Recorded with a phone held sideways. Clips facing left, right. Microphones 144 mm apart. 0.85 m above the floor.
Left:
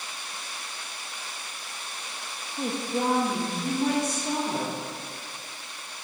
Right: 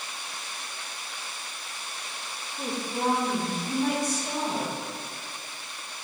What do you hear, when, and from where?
2.6 s a woman speaking: 45° left (ahead or behind), 1.1 m; by 4.7 s 55° left (ahead or behind), 4 m